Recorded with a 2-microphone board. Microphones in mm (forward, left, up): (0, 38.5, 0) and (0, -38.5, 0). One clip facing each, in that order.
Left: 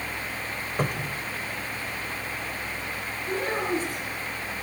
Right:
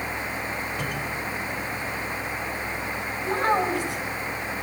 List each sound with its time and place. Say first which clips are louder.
0.8 s a cupboard door: even; 40° left (ahead or behind), 2.5 m
3.2 s a child speaking: right 6 dB; 75° right (ahead or behind), 7 m